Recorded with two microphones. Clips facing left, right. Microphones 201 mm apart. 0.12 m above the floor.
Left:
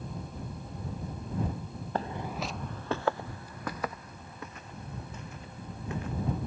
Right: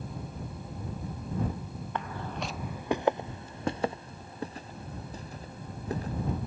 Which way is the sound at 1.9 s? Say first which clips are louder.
Left 3 dB; 40° left (ahead or behind).